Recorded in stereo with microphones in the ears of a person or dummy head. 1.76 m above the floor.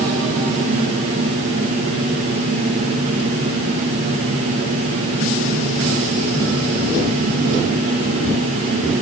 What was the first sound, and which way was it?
Only background noise.